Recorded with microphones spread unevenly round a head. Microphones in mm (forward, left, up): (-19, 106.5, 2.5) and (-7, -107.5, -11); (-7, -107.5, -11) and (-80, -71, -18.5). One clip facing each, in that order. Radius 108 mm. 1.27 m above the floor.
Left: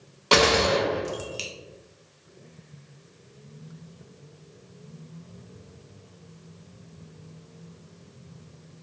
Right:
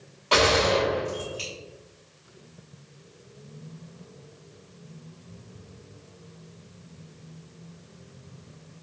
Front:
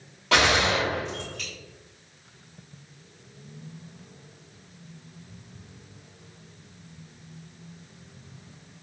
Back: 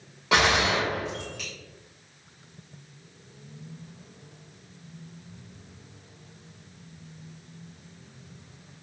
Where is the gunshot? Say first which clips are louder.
Left 1 dB, front 1 dB; 70° left, 0.7 m.